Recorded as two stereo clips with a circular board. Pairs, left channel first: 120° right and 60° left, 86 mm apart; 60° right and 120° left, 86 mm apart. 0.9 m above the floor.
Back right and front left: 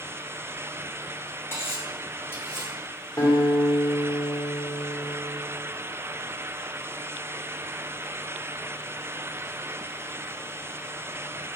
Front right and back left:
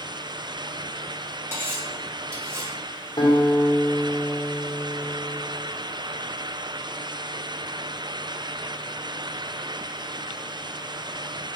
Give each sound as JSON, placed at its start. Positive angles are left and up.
{"t": 1.5, "sound": "cutlery clinking", "azimuth_deg": 180, "distance_m": 3.0}
{"t": 3.2, "sound": "a guitar", "azimuth_deg": -65, "distance_m": 2.0}